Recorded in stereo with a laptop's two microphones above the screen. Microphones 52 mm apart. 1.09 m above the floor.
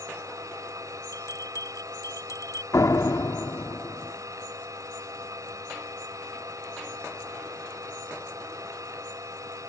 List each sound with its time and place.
0.0 s a machine running: 90° right
1.1 s a bell: 85° left
2.7 s a door slam: 80° left